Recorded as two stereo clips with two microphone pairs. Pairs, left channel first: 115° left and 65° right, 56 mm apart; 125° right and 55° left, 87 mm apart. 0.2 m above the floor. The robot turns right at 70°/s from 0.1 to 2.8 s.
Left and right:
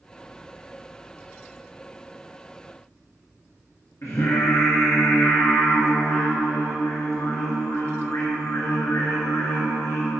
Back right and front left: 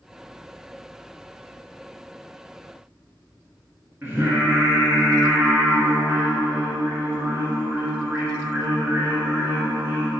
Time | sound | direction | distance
4.0 | singing | 115° left | 1.6 m